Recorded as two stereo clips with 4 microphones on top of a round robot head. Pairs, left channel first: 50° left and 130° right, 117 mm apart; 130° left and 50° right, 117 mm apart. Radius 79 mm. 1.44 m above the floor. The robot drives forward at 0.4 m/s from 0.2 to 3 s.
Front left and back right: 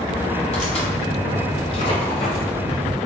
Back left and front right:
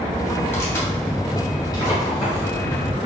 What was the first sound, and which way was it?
Tearing paper, 60° left.